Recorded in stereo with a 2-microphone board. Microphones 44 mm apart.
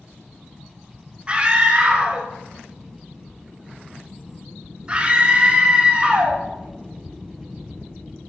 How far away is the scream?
About 0.7 m.